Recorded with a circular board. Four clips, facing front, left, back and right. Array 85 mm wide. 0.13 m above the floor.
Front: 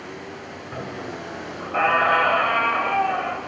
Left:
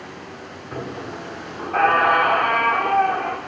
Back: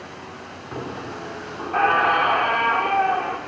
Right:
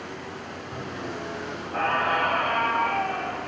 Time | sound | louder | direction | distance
0.7 | a squeak | left 4 dB, back 1 dB | 135° left | 4.5 m